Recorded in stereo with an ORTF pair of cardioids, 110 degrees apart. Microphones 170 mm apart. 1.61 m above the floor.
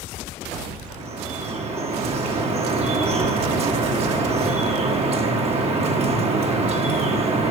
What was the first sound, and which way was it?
Dripping, 35° right.